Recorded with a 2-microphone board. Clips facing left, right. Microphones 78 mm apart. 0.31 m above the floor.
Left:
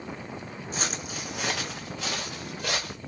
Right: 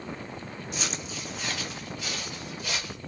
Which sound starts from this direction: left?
Footsteps, at 0.7 s.